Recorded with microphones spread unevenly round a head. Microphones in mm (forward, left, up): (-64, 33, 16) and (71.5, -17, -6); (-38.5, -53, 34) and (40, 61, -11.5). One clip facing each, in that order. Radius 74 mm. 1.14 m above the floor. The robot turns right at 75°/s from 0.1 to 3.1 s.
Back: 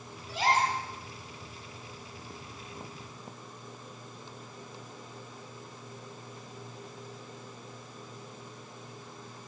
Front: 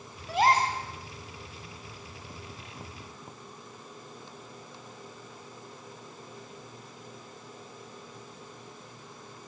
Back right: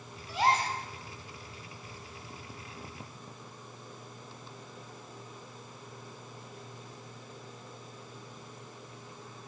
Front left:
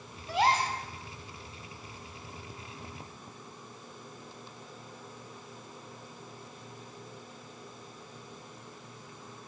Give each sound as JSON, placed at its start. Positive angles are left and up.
{"t": 0.3, "sound": "a gasp", "azimuth_deg": 15, "distance_m": 6.0}